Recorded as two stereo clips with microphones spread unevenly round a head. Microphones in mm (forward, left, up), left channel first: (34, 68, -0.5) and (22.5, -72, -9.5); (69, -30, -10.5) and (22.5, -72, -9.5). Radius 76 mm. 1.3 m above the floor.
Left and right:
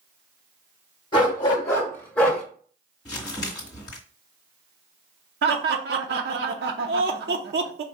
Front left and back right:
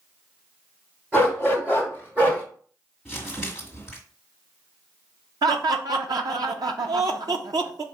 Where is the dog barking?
140° left, 1.7 m; by 2.4 s 170° left, 1.4 m.